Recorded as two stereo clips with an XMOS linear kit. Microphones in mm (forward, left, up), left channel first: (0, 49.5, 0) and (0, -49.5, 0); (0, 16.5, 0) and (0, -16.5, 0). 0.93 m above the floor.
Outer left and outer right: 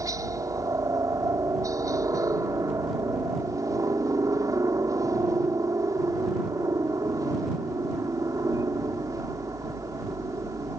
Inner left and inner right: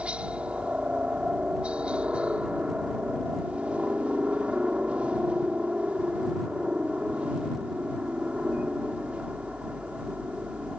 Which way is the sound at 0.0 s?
35° right (ahead or behind).